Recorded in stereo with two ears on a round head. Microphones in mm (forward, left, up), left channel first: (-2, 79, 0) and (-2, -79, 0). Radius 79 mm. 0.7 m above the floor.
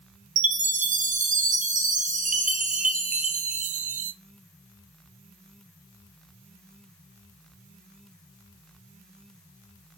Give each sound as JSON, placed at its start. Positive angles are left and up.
{"t": 0.4, "sound": "a chime", "side_deg": -45, "distance_m": 0.8}